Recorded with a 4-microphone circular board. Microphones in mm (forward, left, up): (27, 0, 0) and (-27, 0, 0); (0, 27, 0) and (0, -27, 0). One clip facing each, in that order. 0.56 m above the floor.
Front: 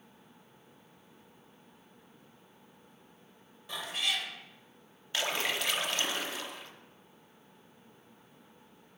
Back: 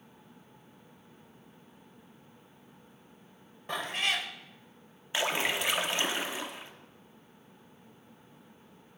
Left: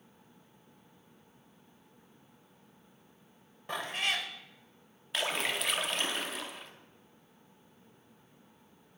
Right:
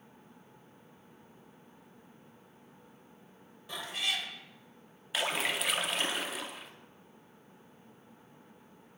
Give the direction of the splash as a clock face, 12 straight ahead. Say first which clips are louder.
Back 3 dB, right 1 dB; 6 o'clock.